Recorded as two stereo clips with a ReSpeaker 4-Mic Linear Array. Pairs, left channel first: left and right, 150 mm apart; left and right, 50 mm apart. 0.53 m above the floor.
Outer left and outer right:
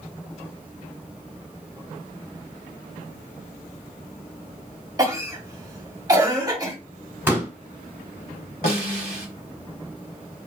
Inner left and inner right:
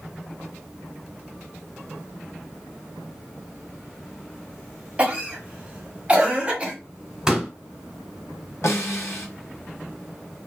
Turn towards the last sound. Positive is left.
turn(degrees=80)